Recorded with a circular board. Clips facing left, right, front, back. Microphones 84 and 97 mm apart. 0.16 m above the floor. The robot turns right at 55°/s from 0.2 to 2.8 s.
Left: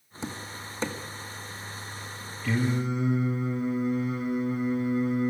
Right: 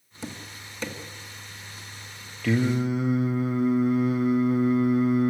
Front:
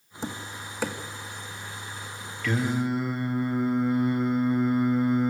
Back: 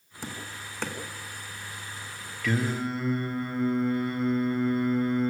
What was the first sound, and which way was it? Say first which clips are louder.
Tapping: left 2 dB, front 4 dB; 45° left.